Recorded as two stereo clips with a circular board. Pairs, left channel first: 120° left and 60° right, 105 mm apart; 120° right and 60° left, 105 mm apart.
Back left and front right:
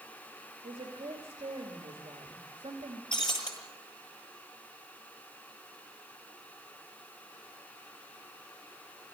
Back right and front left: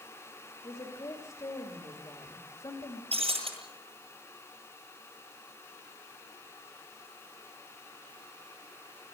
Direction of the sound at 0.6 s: 75° right.